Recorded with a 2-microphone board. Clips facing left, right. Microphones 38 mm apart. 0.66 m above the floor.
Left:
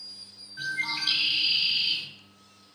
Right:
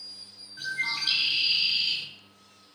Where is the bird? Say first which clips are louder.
Even; 5° left (ahead or behind), 1.4 m.